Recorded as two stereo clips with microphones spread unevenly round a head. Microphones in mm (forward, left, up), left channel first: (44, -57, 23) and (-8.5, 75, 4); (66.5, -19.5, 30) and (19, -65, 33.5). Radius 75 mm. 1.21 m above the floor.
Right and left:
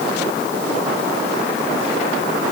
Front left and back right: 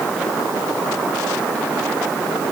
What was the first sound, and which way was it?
Only background noise.